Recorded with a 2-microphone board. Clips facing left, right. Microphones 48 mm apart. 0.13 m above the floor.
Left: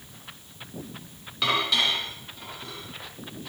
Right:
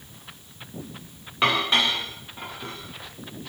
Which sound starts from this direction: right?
Dishes clattering, at 1.4 s.